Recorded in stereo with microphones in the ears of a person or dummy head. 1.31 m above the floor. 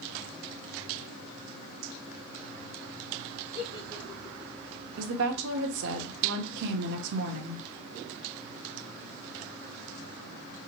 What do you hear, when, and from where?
3.5 s a giggle: 20° left (ahead or behind), 0.6 m
5.0 s a woman speaking: 70° right (ahead or behind), 0.9 m